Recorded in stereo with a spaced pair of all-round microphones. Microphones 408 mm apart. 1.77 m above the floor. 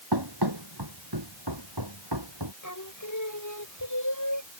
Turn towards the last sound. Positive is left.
turn(degrees=45)  # may be behind; listen again after turning